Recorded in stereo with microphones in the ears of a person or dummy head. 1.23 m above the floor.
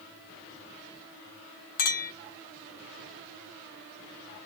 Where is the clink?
50° left (ahead or behind), 0.9 m.